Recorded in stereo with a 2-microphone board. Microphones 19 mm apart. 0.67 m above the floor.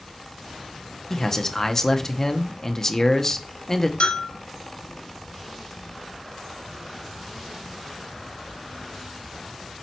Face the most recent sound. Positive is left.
turn(degrees=75)  # may be behind; listen again after turning